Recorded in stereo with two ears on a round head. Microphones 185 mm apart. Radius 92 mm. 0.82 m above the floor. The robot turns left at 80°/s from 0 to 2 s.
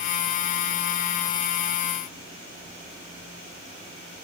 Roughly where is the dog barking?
No dog barking in this recording.